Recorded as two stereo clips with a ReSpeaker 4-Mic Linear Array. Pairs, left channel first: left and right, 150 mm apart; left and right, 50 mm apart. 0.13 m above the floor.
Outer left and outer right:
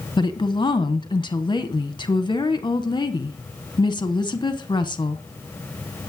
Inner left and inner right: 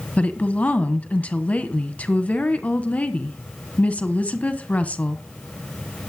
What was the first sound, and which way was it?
A woman speaking, 30° left (ahead or behind).